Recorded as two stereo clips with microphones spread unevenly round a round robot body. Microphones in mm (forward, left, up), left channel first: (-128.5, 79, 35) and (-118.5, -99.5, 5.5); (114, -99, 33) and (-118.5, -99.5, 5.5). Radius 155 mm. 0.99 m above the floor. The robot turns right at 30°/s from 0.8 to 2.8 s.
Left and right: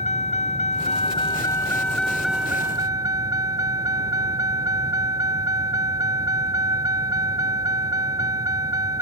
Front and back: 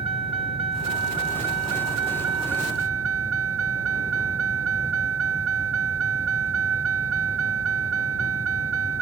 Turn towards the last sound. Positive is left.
turn(degrees=-160)